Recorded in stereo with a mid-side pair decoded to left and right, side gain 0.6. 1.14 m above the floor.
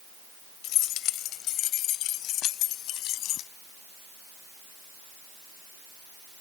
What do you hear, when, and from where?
0.6 s keys jangling: 65° left; by 3.5 s 60° left